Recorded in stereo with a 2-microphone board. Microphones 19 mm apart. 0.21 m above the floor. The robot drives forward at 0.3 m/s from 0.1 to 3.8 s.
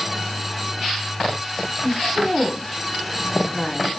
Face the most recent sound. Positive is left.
turn(degrees=10)  # may be behind; listen again after turning